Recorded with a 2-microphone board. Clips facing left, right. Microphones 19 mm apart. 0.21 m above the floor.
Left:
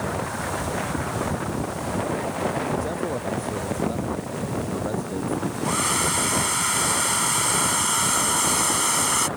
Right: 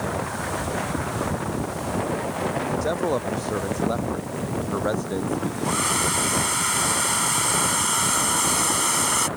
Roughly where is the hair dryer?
Centre.